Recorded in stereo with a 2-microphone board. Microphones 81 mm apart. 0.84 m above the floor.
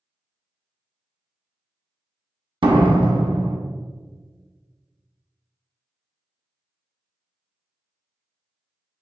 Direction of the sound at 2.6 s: 65° right (ahead or behind).